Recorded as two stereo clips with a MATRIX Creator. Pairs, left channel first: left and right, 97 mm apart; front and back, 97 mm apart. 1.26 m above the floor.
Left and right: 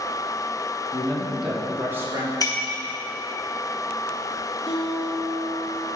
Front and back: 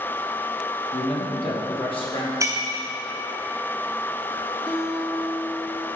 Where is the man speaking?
20° left, 1.6 m; by 2.3 s 35° right, 2 m.